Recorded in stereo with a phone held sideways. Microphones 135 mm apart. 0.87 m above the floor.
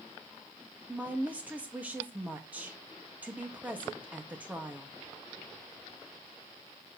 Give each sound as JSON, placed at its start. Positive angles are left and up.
{"t": 0.9, "sound": "a woman speaking", "side_deg": -10, "distance_m": 1.3}